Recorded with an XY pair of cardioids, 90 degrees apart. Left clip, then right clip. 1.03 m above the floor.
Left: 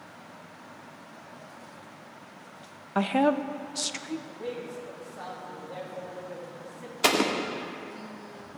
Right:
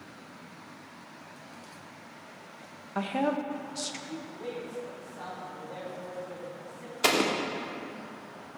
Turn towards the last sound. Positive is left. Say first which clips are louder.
# left 1 dB
turn(degrees=15)